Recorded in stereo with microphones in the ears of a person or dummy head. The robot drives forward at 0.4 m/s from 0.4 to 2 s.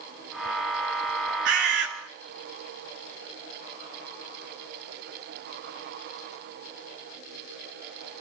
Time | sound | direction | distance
1.4 | a bird | 65° right (ahead or behind) | 1.8 m